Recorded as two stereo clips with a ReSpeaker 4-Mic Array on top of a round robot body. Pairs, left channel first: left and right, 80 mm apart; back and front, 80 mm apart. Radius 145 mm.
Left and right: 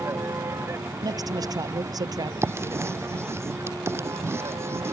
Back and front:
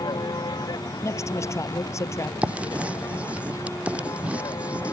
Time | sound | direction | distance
0.0 | a vehicle | 150° right | ?
1.0 | a man speaking | 130° right | ?
2.4 | writing | 65° right | ?